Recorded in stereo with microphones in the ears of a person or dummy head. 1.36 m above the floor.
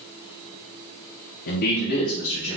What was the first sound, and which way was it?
A man speaking, 55° left (ahead or behind).